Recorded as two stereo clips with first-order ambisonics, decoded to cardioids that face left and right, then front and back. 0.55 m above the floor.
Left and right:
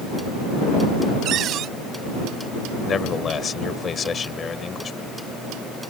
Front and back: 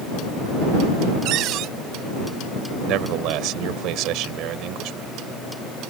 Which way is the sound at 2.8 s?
155° left.